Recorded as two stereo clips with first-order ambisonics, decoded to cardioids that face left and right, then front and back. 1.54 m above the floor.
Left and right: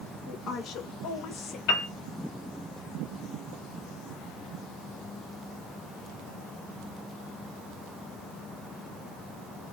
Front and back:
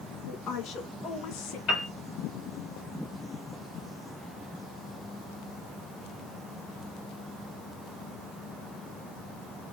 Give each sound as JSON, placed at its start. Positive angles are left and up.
{"t": 0.3, "sound": "a woman speaking", "azimuth_deg": 40, "distance_m": 3.0}
{"t": 1.7, "sound": "a piano", "azimuth_deg": 55, "distance_m": 2.0}